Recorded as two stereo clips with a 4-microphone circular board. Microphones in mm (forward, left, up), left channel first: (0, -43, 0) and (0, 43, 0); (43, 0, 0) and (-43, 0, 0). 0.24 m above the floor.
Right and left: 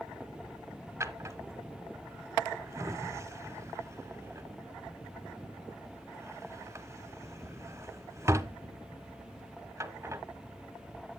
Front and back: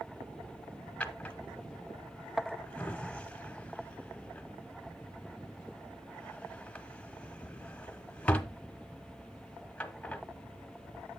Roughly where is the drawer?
Ahead left.